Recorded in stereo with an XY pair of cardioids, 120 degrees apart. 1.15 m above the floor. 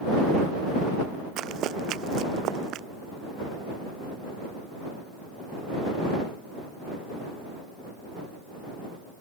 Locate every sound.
1.4 s running footsteps: 70° right